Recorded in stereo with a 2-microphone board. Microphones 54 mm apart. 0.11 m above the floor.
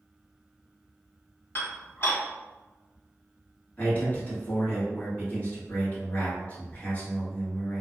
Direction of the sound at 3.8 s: 30° left (ahead or behind).